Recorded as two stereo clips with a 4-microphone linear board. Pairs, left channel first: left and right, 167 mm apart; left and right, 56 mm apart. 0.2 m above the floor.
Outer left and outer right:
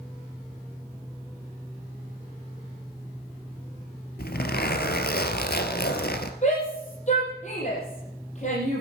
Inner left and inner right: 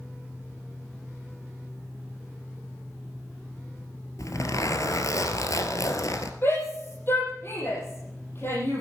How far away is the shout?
About 7 m.